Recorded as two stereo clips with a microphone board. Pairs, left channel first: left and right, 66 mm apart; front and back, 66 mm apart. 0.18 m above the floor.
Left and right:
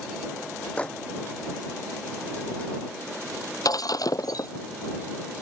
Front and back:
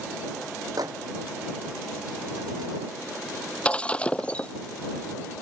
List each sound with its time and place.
0.8 s a microwave: 160° left
3.6 s breaking glass: 70° left